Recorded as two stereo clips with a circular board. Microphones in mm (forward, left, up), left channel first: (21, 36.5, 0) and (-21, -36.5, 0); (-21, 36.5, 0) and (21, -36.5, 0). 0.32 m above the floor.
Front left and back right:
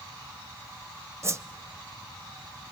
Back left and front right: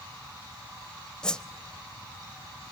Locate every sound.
1.2 s a whoosh: 165° right, 0.6 m